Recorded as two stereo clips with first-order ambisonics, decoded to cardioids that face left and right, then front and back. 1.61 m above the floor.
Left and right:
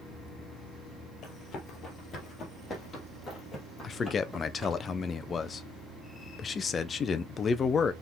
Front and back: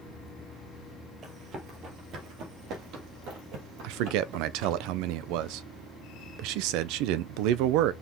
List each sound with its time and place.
1.2 s running footsteps: 130° left, 2.5 m; by 4.8 s 175° right, 3.5 m
3.8 s a man speaking: 160° left, 0.6 m